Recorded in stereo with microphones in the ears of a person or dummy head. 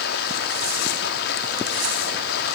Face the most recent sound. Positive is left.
turn(degrees=65)  # may be behind; listen again after turning